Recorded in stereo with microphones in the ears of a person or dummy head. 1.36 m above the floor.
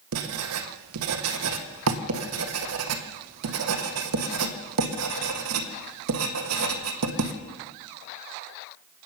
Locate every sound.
0.1 s writing: 85° right, 1.6 m